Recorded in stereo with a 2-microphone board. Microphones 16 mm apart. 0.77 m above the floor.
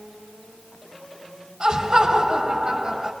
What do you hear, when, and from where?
1.6 s laughter: 55° right (ahead or behind), 5 m; by 3.1 s 45° right (ahead or behind), 5 m